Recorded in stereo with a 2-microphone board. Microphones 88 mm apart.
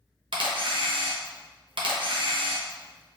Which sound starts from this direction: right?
A camera shutter, at 0.3 s.